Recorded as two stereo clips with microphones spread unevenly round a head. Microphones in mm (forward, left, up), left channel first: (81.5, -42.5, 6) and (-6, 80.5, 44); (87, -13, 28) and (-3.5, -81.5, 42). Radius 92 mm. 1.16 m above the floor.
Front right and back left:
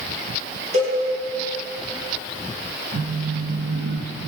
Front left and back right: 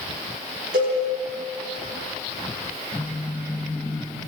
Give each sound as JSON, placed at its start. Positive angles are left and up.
{"t": 0.7, "sound": "a cowbell", "azimuth_deg": 180, "distance_m": 8.0}
{"t": 2.9, "sound": "a phone buzzing", "azimuth_deg": 120, "distance_m": 1.3}